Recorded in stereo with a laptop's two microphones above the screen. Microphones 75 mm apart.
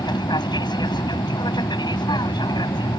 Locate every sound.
0.0 s an aircraft: 80° left